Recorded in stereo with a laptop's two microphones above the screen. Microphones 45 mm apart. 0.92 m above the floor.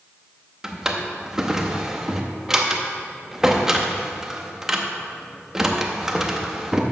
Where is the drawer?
10° right (ahead or behind), 0.7 m.